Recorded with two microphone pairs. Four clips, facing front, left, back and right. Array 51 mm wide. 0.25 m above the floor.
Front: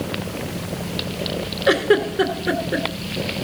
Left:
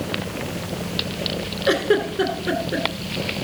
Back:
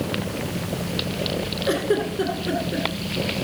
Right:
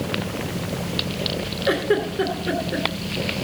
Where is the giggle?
5° left, 2.5 m.